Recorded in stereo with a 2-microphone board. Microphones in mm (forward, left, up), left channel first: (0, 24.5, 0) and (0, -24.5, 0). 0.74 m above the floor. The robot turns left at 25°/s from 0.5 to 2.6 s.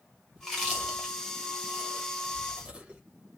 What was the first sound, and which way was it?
Chewing, centre (ahead or behind).